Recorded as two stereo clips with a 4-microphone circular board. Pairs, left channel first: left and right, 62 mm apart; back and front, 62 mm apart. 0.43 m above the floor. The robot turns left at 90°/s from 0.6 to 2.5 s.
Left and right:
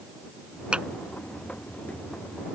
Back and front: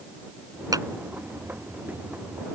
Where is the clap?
15° right; by 0.9 s 30° right.